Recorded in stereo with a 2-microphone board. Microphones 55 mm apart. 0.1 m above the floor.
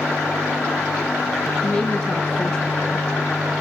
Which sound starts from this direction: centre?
A woman speaking, at 1.6 s.